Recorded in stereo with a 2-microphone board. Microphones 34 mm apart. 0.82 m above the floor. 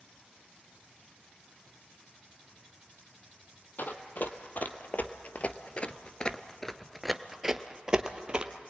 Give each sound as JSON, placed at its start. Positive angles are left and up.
{"t": 3.8, "sound": "running footsteps", "side_deg": 60, "distance_m": 1.8}